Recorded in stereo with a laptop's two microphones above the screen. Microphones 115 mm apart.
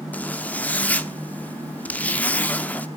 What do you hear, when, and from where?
0.1 s a zipper: 15° left (ahead or behind), 0.6 m